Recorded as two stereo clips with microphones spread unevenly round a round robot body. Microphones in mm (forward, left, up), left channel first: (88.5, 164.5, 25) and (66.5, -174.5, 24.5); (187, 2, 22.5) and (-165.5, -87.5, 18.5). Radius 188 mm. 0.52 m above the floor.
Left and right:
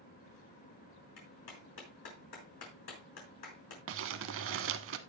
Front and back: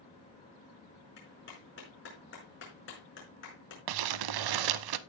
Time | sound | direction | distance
1.2 | a clap | 75° left | 5 m
3.9 | crumpling | 150° right | 0.6 m